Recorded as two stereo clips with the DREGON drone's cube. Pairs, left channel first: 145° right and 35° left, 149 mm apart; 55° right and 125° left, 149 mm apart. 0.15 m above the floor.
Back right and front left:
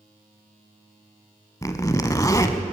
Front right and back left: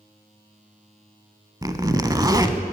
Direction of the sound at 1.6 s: 165° left.